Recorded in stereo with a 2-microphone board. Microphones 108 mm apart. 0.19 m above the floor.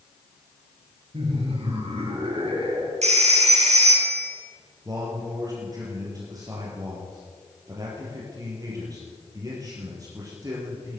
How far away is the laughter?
About 4 m.